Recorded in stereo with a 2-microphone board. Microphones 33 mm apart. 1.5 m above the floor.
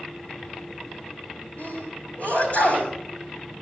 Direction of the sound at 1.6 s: 45° left (ahead or behind).